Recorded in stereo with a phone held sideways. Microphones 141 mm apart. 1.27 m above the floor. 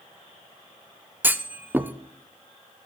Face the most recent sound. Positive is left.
turn(degrees=-15)  # may be behind; listen again after turning